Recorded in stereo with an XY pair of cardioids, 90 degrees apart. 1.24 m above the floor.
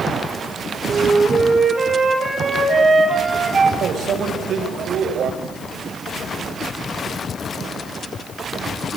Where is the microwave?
65° right, 4.5 m.